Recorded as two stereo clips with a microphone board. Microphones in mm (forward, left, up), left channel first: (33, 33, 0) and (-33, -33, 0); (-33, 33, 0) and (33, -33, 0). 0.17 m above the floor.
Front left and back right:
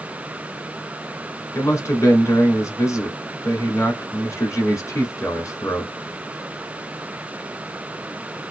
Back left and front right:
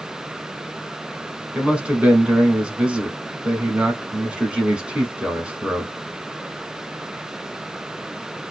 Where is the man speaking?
25° left, 1.2 m.